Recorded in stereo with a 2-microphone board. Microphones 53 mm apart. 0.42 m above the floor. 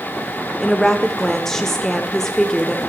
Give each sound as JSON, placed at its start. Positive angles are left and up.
{"t": 0.6, "sound": "a woman speaking", "side_deg": 10, "distance_m": 0.8}